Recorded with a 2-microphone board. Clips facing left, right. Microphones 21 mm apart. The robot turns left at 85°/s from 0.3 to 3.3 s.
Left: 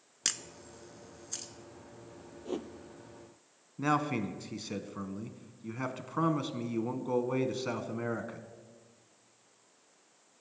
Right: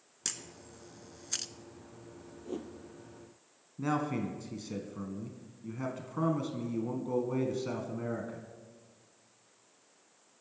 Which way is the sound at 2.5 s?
40° left (ahead or behind).